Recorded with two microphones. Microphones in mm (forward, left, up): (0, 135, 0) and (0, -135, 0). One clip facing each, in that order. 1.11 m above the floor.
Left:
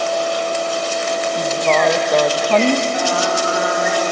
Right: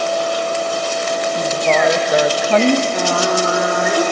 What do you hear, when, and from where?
1.4 s a woman speaking: 5° right (ahead or behind), 0.7 m
2.9 s singing: 60° right (ahead or behind), 1.2 m